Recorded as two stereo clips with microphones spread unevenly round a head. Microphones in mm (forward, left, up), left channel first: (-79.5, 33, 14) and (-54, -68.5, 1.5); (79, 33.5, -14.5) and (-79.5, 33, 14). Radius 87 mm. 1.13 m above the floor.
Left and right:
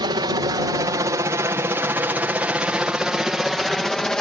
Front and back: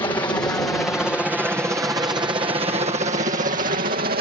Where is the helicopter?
60° right; by 4.2 s 170° right.